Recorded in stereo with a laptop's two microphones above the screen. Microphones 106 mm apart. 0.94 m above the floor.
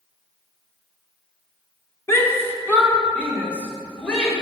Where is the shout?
25° left (ahead or behind), 2.0 m; by 4.3 s 10° left (ahead or behind), 3.5 m.